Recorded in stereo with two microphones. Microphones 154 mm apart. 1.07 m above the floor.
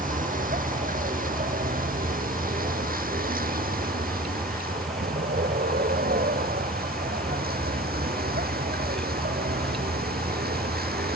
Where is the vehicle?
65° right (ahead or behind); by 11.2 s 85° right.